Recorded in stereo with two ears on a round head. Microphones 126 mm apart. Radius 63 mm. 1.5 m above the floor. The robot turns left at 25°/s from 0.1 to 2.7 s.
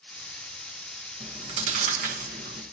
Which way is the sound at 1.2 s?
35° right (ahead or behind).